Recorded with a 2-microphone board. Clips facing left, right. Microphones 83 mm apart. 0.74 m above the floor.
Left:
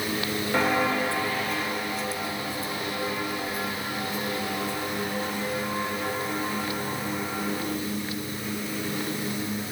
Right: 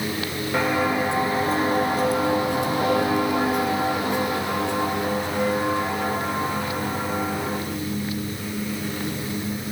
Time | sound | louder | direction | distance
0.5 | footsteps | right 2 dB | centre (ahead or behind) | 1.4 m